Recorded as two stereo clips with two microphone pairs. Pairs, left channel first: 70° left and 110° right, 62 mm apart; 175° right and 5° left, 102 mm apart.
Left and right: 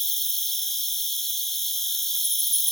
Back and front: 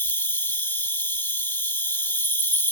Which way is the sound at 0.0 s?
150° left.